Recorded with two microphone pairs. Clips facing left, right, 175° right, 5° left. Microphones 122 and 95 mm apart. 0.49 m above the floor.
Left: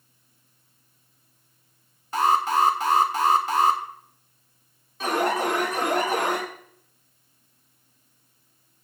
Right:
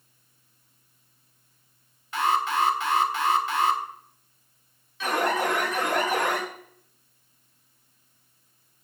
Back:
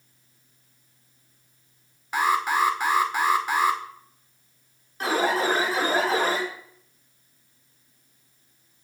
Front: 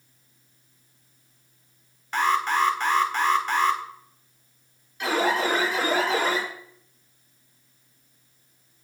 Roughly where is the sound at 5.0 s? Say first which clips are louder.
Left 1 dB, even; behind left.